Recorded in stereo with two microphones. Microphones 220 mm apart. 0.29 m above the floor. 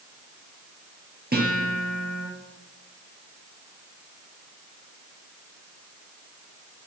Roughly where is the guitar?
Right.